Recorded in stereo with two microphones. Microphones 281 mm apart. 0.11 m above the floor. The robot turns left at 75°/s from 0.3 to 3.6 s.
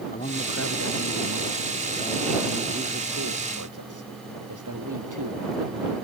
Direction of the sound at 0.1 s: 155° left.